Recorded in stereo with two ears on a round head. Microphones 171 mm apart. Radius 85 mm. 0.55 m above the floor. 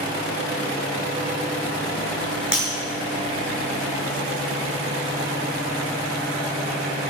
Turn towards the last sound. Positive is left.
turn(degrees=-5)  # may be behind; listen again after turning